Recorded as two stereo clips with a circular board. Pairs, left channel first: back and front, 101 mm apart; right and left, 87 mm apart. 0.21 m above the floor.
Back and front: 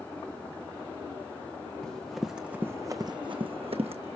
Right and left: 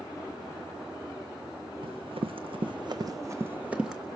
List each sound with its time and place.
1.8 s running footsteps: 100° left, 1.2 m; by 4.0 s 5° left, 1.1 m